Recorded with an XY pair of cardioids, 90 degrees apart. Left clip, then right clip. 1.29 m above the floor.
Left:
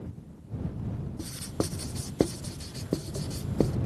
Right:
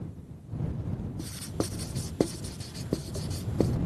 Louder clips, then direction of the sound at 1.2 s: Left 2 dB; 15° left.